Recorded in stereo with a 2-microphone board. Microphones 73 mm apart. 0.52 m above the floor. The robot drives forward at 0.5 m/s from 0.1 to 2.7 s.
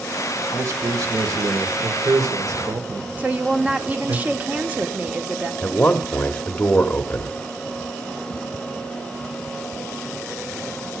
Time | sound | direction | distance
0.5 | a man speaking | 50° right (ahead or behind) | 2.0 m
3.2 | a woman speaking | 25° right (ahead or behind) | 1.2 m
5.6 | a man speaking | 20° left (ahead or behind) | 1.1 m